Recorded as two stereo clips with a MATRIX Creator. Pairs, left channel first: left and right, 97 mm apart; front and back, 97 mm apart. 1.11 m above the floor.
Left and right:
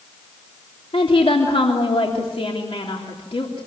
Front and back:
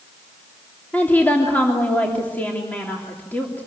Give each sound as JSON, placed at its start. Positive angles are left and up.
{"t": 0.9, "sound": "a woman speaking", "azimuth_deg": 70, "distance_m": 3.0}